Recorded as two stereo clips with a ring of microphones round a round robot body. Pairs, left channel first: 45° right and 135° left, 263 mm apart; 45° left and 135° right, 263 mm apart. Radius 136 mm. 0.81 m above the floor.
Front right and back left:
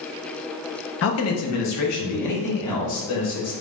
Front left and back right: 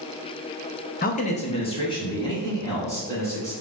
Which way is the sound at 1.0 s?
10° right.